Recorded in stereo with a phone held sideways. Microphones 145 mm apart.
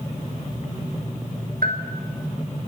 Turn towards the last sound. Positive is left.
turn(degrees=-80)